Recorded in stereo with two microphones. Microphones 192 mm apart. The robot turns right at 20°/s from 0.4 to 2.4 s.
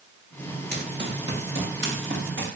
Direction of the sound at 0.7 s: 60° right (ahead or behind).